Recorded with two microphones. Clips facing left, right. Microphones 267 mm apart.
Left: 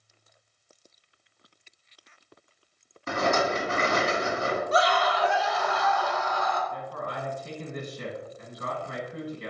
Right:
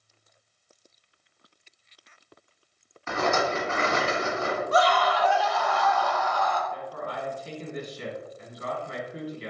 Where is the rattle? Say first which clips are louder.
Even; 40° left (ahead or behind), 1.4 m.